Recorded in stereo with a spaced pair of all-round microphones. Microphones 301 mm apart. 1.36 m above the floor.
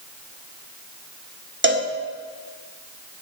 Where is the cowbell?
40° right (ahead or behind), 1.6 m.